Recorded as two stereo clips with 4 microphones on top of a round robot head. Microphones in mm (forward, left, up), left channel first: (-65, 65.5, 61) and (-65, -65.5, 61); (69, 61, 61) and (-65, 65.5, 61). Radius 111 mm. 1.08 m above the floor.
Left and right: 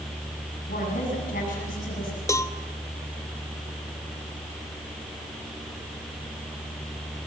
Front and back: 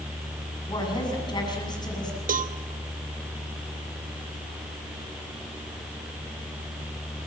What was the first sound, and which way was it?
A woman speaking, 55° left.